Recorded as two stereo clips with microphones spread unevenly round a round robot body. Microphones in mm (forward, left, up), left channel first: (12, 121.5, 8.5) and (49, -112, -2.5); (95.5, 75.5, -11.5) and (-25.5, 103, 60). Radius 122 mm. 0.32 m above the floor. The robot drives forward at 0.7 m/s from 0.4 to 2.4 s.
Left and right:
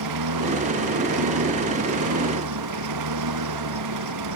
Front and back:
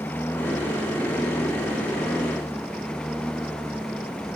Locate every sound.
0.0 s a lawn mower: 95° right; by 4.4 s 100° right